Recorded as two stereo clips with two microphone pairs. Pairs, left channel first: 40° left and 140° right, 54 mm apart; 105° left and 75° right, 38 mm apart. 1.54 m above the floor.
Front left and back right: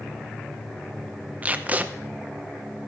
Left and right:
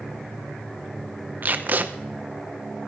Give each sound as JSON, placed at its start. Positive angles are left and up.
{"t": 1.4, "sound": "tape being pulled", "azimuth_deg": -85, "distance_m": 0.7}